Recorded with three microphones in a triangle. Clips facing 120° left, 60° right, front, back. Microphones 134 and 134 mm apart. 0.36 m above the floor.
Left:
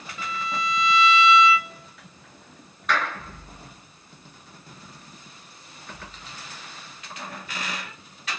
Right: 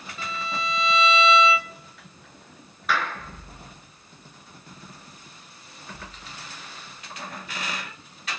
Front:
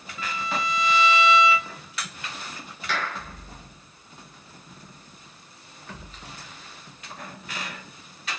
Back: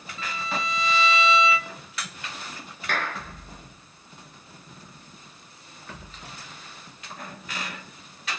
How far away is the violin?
About 0.6 m.